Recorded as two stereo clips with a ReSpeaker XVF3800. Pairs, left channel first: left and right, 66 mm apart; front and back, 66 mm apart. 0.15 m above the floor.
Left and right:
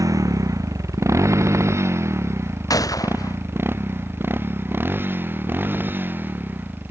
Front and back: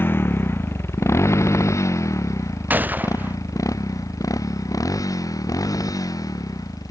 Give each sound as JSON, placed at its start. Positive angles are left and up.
{"t": 0.0, "sound": "a motorcycle", "azimuth_deg": -60}
{"t": 2.7, "sound": "a gunshot", "azimuth_deg": 115}